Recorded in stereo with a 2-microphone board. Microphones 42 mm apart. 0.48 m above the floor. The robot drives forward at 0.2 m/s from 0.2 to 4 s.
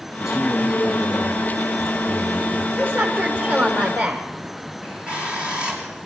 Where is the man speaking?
10° right (ahead or behind), 5 m.